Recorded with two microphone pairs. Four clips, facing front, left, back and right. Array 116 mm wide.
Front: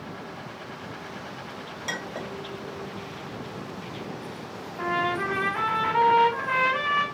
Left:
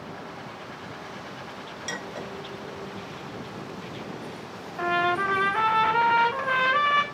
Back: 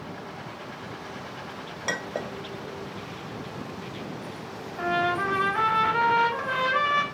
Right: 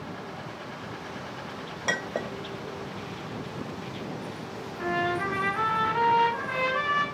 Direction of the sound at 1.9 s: 125° right.